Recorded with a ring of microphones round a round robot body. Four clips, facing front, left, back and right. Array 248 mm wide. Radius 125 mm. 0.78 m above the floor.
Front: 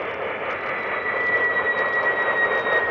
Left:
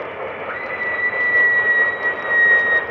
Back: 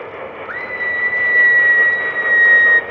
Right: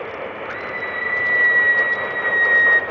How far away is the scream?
About 4.5 m.